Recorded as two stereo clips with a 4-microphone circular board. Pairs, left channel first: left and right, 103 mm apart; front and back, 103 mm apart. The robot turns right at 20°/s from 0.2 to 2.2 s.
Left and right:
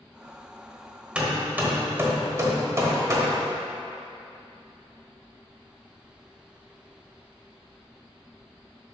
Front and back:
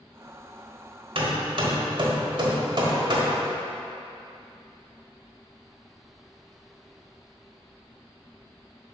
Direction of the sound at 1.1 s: 170° right.